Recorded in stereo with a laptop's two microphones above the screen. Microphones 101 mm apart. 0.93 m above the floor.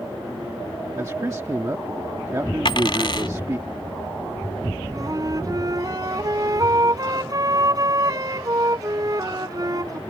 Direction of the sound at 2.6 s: 50° left (ahead or behind).